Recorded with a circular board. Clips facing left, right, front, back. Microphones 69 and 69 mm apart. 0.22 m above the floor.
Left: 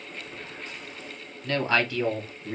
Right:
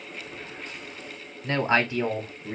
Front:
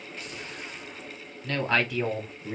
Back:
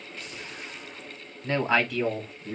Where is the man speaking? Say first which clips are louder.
Right 1 dB, back 2 dB; 135° right, 1.3 m; by 2.5 s 20° right, 1.4 m.